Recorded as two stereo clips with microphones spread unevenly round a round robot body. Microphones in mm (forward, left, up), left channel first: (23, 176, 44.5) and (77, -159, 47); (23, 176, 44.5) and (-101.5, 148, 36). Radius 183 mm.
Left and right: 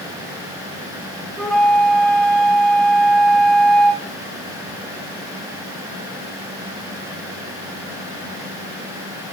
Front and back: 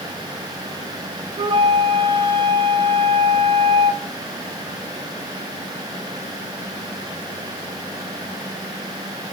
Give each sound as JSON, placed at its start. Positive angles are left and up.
{"t": 1.4, "sound": "a flute", "azimuth_deg": -170, "distance_m": 0.5}